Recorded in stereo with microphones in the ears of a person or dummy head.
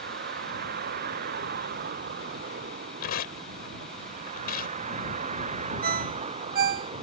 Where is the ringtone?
55° right (ahead or behind).